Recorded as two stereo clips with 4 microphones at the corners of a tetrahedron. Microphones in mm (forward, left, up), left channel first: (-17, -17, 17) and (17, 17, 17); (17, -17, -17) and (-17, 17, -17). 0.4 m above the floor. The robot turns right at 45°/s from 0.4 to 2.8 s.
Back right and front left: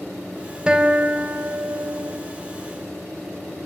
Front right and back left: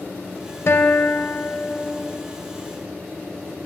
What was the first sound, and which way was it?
A guitar, 25° right.